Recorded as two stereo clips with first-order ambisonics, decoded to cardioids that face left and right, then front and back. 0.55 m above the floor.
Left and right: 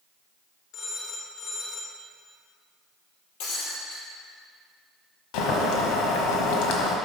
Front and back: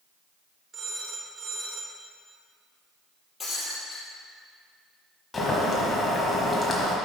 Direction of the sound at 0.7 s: 120° left.